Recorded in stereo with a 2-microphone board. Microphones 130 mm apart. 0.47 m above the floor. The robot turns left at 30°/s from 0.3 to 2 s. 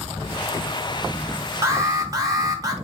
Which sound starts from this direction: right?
An alarm, at 1.6 s.